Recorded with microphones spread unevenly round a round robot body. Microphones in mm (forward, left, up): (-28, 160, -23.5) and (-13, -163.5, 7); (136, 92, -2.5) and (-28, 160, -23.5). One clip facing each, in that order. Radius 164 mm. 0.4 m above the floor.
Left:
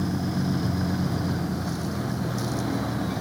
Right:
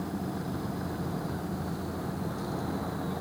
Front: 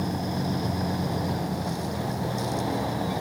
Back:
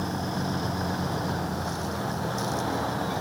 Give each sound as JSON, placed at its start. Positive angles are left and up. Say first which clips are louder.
{"t": 0.0, "sound": "a vehicle", "louder": "left 7 dB, front 2 dB", "azimuth_deg": 55}